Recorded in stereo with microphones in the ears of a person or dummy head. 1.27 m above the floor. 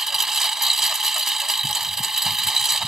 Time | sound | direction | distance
0.0 | a lawn mower | 5° right (ahead or behind) | ?